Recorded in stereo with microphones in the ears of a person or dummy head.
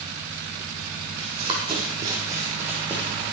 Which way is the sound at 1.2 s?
35° right (ahead or behind).